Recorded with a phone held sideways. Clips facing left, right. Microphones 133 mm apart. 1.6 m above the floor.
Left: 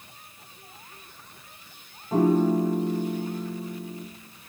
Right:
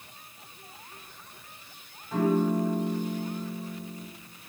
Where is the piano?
35° left (ahead or behind), 0.7 m.